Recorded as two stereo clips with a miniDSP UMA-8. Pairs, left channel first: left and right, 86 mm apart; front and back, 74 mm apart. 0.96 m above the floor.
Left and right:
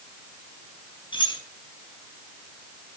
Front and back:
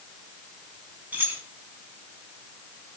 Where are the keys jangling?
115° left, 5.5 m.